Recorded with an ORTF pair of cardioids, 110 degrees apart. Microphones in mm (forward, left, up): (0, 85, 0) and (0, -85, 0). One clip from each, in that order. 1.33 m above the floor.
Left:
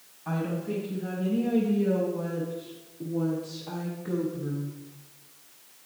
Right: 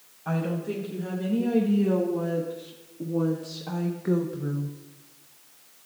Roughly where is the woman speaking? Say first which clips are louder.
Right 2 dB; ahead right.